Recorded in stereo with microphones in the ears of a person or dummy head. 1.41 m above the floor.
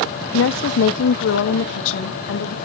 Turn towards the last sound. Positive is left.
turn(degrees=85)